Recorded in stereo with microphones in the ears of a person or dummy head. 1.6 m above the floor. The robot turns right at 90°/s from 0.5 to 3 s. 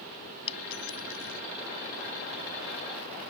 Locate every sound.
0.5 s a dropped coin: 35° left (ahead or behind); by 1.4 s 60° left (ahead or behind)